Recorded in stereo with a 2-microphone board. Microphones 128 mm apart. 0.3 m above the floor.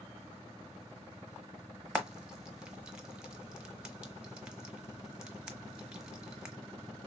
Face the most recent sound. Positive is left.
turn(degrees=-5)  # may be behind; listen again after turning